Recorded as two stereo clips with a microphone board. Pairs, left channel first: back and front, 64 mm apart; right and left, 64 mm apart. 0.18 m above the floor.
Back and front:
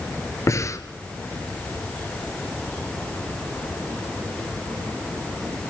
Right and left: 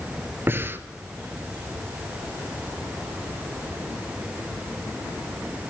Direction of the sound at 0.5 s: 145° left.